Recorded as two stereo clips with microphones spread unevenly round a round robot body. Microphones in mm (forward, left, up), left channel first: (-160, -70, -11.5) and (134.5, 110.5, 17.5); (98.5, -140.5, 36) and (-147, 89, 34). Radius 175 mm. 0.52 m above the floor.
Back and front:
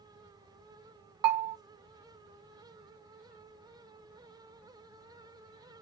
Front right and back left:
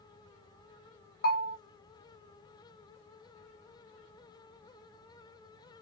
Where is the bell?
25° left, 0.8 m.